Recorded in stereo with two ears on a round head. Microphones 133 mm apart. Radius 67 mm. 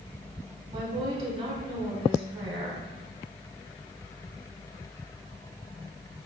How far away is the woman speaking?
About 2.5 m.